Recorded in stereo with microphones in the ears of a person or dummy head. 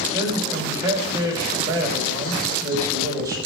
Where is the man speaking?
20° right (ahead or behind), 5 m.